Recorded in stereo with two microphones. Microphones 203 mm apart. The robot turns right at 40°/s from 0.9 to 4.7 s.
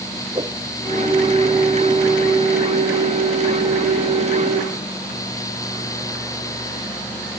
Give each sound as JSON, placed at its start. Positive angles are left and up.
{"t": 0.3, "sound": "a whoosh", "side_deg": -25}